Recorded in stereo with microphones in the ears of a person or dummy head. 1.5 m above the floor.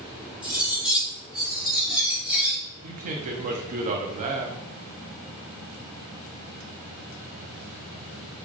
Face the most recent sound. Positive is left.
turn(degrees=-40)  # may be behind; listen again after turning